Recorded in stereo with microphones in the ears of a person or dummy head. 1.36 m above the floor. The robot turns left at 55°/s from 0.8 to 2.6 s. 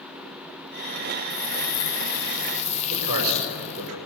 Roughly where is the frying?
Left.